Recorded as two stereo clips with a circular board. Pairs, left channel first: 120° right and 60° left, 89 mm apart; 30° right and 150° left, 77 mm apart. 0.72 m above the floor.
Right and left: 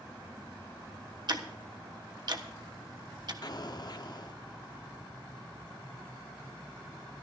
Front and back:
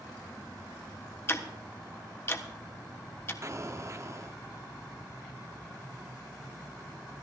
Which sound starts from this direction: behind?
An explosion, at 3.4 s.